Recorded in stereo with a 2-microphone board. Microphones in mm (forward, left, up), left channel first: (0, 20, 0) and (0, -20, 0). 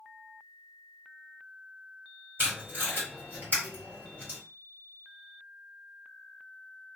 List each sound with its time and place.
2.4 s tape being pulled: 55° right (ahead or behind), 1.7 m